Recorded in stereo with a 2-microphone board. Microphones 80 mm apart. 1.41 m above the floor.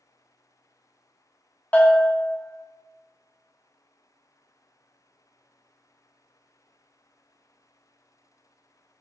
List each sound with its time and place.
1.7 s a bell: 20° left (ahead or behind), 0.5 m